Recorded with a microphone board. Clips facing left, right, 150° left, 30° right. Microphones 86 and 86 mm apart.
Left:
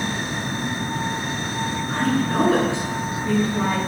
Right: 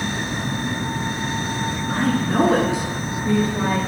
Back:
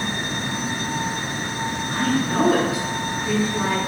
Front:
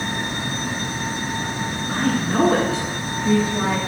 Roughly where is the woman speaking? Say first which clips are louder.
Right 1 dB, front 1 dB; ahead.